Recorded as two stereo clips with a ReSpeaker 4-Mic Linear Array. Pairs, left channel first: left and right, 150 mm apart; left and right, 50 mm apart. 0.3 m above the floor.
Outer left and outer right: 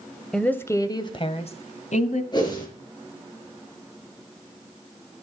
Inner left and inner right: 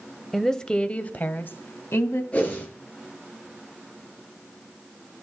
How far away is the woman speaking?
About 1.1 m.